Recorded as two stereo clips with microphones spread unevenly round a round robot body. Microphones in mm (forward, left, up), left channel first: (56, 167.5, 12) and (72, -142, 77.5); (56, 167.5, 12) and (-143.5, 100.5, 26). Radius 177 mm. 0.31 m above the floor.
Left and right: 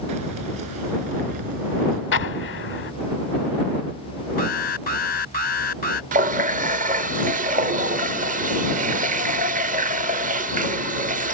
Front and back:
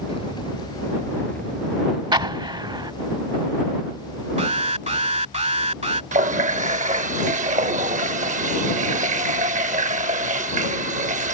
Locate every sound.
0.1 s keys jangling: 55° right; by 2.0 s 75° right
2.1 s an explosion: 130° left
4.4 s an alarm: 145° left
6.1 s a running tap: 150° right